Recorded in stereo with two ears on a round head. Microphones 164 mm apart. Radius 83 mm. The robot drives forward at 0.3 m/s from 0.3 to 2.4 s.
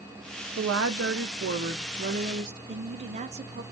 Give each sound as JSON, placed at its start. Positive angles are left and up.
{"t": 0.6, "sound": "a woman speaking", "side_deg": -85, "distance_m": 0.6}
{"t": 2.7, "sound": "a woman speaking", "side_deg": -35, "distance_m": 0.6}